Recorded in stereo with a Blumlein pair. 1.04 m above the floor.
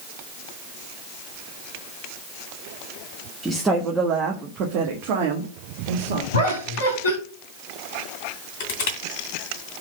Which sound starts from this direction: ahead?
A woman speaking, at 3.4 s.